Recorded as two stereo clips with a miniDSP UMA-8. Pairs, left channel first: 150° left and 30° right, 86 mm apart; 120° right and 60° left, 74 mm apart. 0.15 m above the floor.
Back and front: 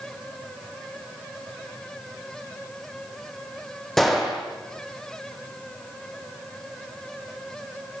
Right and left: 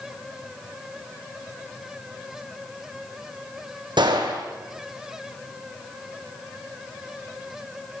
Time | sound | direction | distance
4.0 | a gunshot | 65° left | 4.5 m